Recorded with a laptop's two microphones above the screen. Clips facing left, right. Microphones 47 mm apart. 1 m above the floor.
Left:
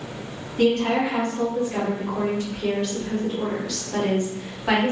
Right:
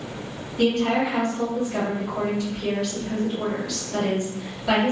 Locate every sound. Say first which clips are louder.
0.6 s a woman speaking: left 1 dB; 40° left (ahead or behind), 1.9 m